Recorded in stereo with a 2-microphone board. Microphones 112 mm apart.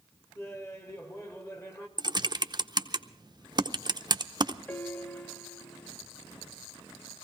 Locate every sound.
0.3 s laughter: 25° left (ahead or behind), 2 m
2.0 s typing on a keyboard: 40° right (ahead or behind), 0.8 m
4.7 s a piano: 15° left (ahead or behind), 0.7 m